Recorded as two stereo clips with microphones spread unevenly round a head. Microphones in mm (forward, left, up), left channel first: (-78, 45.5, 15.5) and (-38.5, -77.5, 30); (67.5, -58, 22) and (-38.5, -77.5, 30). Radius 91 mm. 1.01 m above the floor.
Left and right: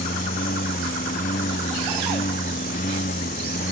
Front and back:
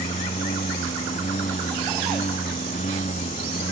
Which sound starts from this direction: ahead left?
A lawn mower, at 0.0 s.